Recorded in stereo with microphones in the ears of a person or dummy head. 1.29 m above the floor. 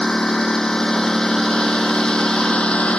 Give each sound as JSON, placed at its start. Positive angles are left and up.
{"t": 0.0, "sound": "a lawn mower", "side_deg": 5}